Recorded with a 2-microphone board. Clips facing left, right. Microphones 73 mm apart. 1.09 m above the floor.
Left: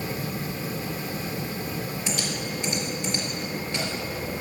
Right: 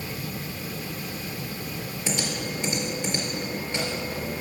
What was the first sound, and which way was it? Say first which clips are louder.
Typing on a keyboard: even; 20° right (ahead or behind).